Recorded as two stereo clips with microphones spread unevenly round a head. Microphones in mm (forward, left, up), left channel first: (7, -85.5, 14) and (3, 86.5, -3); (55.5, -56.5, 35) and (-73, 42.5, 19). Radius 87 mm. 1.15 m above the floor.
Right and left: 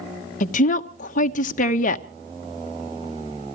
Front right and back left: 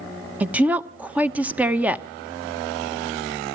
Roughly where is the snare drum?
No snare drum in this recording.